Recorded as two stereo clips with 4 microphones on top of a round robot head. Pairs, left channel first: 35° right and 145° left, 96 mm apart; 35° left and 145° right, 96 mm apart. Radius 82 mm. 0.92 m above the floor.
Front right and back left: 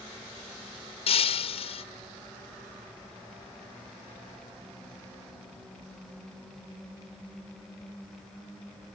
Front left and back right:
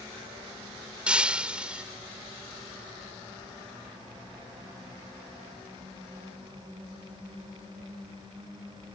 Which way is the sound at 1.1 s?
65° right.